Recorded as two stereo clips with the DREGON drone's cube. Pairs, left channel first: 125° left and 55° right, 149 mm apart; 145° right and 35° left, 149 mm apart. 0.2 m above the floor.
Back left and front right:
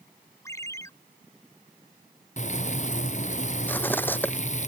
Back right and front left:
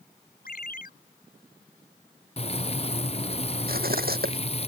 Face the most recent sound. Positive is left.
turn(degrees=45)